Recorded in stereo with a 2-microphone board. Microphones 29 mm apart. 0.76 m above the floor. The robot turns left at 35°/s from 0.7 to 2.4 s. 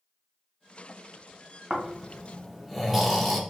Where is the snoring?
15° right (ahead or behind), 0.7 m; by 3.4 s centre (ahead or behind), 0.7 m.